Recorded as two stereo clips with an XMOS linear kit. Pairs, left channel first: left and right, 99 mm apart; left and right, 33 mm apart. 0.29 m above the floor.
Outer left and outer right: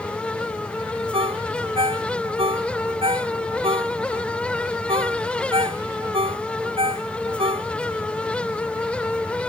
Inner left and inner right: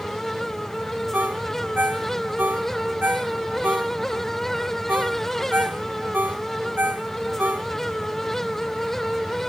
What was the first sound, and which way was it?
A ringtone, 85° right.